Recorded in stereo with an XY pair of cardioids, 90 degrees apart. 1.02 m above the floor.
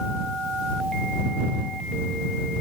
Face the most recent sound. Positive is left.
No sound to turn to.